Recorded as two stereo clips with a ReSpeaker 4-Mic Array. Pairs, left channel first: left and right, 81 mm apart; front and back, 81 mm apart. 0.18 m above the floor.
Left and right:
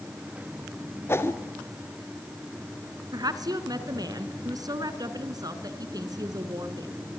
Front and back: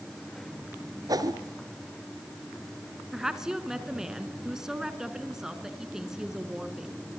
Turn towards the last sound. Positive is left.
turn(degrees=-100)